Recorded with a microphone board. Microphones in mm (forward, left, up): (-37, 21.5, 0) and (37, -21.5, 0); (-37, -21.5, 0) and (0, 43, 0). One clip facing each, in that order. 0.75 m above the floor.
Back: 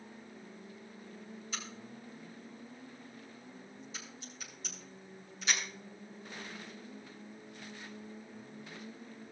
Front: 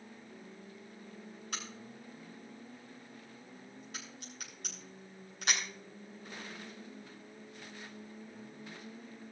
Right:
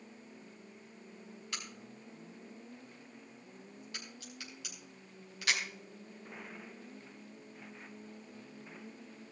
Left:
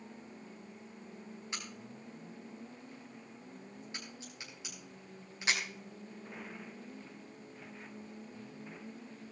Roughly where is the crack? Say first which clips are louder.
Front 2 dB, even; ahead.